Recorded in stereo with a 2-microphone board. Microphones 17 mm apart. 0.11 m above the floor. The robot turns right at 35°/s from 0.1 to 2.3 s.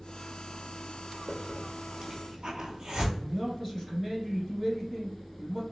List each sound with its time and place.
1.3 s a hiss: 35° right (ahead or behind), 1.0 m; by 3.0 s 60° right (ahead or behind), 1.0 m
3.1 s a man speaking: centre (ahead or behind), 1.9 m